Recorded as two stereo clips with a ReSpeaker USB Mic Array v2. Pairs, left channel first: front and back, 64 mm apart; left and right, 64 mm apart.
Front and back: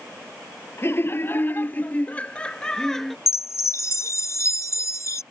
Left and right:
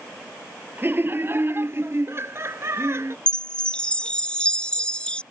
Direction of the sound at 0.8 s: 40° right.